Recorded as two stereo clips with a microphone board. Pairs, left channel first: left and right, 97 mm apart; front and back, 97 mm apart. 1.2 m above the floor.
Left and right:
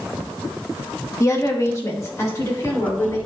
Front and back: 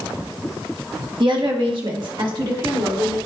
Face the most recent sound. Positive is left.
turn(degrees=150)